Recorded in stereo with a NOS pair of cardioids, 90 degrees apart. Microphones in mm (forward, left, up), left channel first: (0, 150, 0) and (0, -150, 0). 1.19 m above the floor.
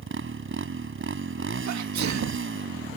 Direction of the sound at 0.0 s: 40° right.